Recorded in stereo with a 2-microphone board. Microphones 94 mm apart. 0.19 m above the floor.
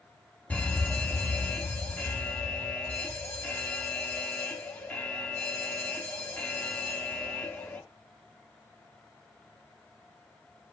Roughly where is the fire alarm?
Centre.